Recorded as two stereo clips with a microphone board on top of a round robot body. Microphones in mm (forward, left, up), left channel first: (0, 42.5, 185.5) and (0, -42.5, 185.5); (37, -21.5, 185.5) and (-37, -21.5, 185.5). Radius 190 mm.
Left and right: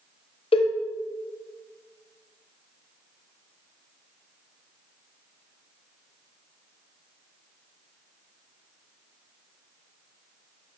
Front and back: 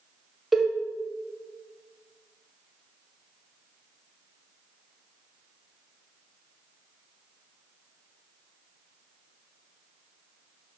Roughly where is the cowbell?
Left.